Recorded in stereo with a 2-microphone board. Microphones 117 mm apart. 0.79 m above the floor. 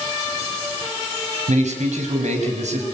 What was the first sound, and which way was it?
A man speaking, 85° right.